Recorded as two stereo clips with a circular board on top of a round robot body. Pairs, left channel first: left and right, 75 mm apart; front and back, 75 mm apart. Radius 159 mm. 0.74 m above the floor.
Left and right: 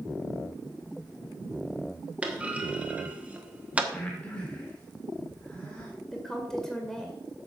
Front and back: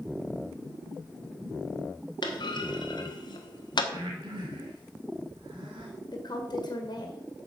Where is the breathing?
165° left, 2.5 m.